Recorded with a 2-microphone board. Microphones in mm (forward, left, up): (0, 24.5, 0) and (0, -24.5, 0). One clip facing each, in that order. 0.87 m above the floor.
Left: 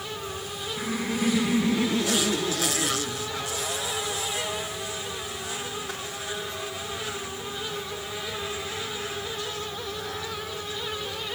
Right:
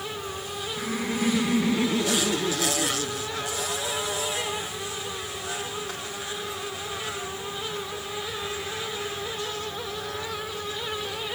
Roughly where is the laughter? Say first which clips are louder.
Even; centre.